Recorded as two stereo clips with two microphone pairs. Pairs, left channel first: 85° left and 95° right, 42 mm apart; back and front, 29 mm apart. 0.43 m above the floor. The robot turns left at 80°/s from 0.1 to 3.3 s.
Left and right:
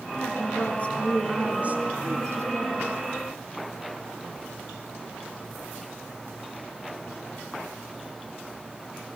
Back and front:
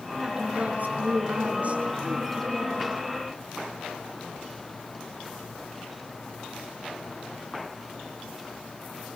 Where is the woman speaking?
75° left, 5.5 m; by 2.9 s 140° right, 5.5 m.